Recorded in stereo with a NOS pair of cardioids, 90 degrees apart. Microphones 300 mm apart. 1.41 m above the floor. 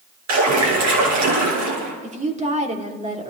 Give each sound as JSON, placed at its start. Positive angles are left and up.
{"t": 0.3, "sound": "a splash", "azimuth_deg": -60, "distance_m": 8.5}
{"t": 2.0, "sound": "a woman speaking", "azimuth_deg": -25, "distance_m": 3.0}